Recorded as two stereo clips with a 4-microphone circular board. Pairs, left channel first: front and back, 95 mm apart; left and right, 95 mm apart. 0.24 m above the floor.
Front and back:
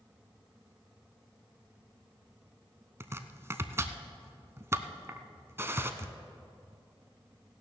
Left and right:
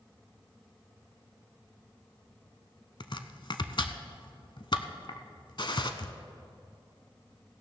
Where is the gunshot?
115° left, 0.8 m.